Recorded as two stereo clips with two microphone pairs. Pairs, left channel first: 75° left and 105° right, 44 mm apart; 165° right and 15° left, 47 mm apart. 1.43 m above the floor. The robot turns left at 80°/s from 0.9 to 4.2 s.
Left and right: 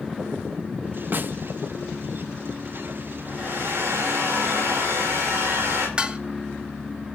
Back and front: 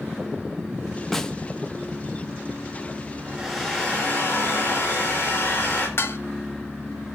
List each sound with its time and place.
1.1 s a snare drum: 80° right, 0.9 m; by 1.4 s 95° right, 0.9 m
3.3 s a hair dryer: 55° right, 9 m; by 5.9 s 130° right, 9 m
6.0 s dishes clattering: 165° right, 0.9 m